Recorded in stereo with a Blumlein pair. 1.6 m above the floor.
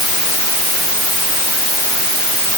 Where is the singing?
I don't hear singing.